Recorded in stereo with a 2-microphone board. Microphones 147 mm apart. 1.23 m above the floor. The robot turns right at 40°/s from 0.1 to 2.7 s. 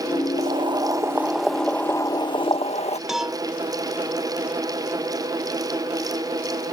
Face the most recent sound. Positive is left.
turn(degrees=0)  # may be behind; listen again after turning